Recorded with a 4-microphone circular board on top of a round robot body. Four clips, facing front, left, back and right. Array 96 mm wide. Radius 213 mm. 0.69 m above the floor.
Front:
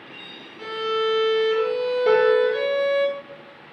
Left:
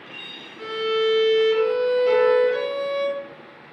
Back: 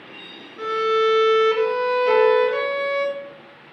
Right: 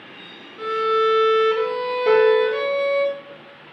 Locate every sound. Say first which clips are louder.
0.6 s a violin: right 3 dB, back 5 dB; 150° right, 1.7 m
2.1 s a piano: right 4 dB, even; 55° right, 4 m